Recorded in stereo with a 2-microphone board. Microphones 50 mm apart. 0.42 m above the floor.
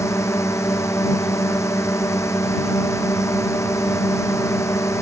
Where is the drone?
70° left (ahead or behind).